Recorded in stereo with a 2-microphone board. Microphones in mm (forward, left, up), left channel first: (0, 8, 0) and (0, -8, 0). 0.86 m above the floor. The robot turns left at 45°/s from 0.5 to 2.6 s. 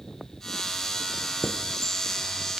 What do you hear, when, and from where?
1.4 s a chime: 5° right (ahead or behind), 0.6 m; by 2.6 s 55° right (ahead or behind), 0.6 m